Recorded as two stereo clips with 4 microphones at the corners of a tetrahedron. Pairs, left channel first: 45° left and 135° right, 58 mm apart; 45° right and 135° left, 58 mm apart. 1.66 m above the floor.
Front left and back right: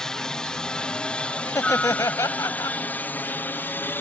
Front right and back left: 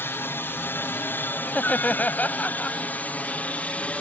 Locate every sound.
0.0 s a helicopter: 30° right; by 4.0 s 15° left
1.5 s laughter: 20° left